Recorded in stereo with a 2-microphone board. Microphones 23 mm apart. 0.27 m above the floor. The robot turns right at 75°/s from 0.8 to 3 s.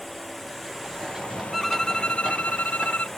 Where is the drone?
5° left; by 3.2 s 170° left.